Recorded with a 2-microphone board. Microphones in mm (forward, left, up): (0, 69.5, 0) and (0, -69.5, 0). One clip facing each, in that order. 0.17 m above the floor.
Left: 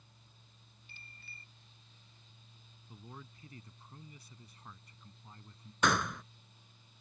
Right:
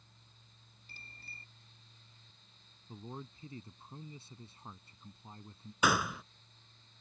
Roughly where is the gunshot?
Centre.